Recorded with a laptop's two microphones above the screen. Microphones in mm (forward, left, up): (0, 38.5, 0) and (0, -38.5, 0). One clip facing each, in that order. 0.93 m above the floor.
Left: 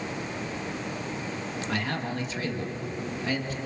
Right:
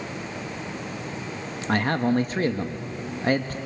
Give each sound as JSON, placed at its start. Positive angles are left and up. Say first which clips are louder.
{"t": 1.7, "sound": "a man speaking", "louder": "right 10 dB", "side_deg": -45, "distance_m": 1.4}